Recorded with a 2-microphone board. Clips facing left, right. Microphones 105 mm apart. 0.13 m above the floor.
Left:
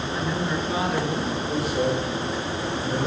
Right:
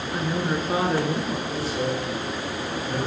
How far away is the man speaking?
About 4 m.